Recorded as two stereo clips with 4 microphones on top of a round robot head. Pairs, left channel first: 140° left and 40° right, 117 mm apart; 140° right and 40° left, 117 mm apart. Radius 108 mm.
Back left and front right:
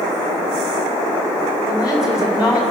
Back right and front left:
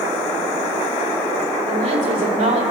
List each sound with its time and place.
1.7 s a woman speaking: 45° left, 4 m